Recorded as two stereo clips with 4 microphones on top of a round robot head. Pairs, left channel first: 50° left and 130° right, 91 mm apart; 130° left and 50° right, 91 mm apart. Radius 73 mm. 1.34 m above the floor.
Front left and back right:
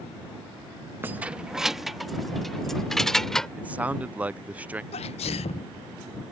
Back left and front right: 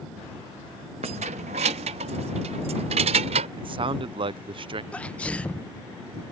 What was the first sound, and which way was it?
Keys jangling, 60° right.